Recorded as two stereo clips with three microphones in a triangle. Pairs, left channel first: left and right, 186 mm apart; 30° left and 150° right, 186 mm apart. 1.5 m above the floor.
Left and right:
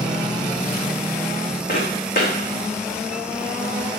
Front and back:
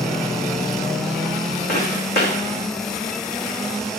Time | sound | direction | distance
1.7 | footsteps | 55° left | 5.5 m